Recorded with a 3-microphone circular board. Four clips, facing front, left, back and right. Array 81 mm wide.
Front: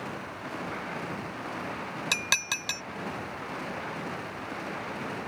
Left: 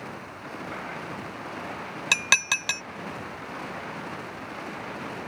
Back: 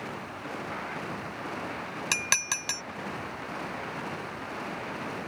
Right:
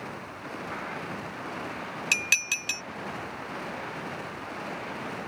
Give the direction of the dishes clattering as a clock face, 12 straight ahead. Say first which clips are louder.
Left 7 dB, back 1 dB; 9 o'clock.